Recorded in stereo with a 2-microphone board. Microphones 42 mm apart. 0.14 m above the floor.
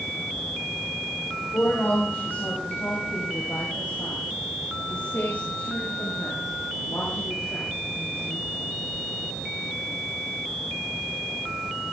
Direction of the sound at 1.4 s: 65° left (ahead or behind).